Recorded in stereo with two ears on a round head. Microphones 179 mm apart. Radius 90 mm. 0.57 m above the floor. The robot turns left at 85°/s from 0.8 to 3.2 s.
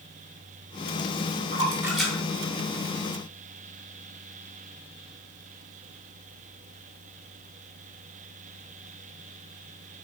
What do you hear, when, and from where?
1.5 s a splash: 40° right (ahead or behind), 2.5 m; by 3.6 s 80° left, 2.5 m